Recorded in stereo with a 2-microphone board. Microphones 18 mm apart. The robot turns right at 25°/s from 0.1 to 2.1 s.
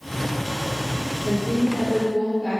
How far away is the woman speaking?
About 3 m.